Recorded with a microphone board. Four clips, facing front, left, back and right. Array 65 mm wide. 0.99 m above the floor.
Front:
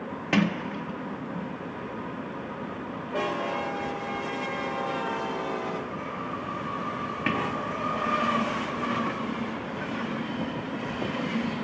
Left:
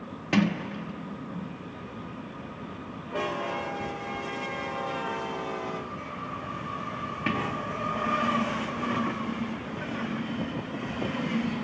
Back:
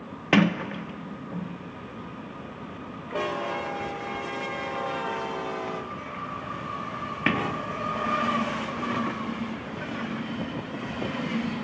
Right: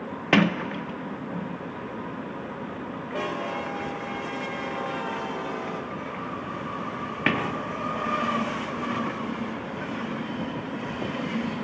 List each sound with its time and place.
0.3 s a sliding door: 120° right, 0.5 m